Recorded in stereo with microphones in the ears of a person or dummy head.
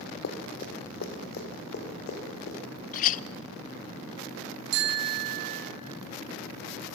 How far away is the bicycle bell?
About 4 m.